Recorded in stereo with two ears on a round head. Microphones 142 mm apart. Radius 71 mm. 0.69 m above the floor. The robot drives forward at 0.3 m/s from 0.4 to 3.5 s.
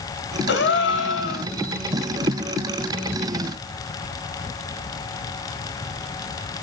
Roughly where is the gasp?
Left.